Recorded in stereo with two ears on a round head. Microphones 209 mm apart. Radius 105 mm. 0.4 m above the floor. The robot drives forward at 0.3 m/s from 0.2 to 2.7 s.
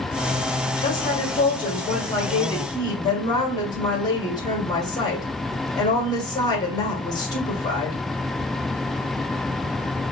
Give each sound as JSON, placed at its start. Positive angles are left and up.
{"t": 0.8, "sound": "a woman speaking", "side_deg": 20, "distance_m": 1.3}